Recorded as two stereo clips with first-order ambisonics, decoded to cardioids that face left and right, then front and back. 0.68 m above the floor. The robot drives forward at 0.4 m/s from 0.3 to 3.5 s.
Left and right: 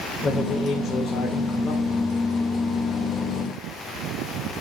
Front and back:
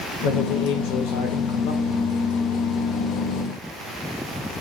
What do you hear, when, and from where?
0.2 s a man speaking: 20° left, 2.5 m; by 2.2 s 25° left, 2 m